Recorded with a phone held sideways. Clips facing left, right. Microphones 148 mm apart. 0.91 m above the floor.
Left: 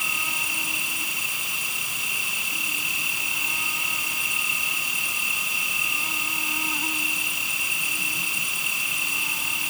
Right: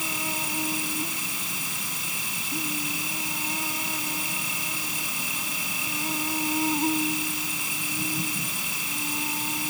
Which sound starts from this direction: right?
An insect, at 0.0 s.